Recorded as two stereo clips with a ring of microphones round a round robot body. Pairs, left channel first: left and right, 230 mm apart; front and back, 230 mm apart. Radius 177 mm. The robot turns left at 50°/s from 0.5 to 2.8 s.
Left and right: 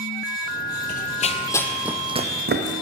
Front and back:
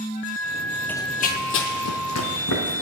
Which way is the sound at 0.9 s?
80° left.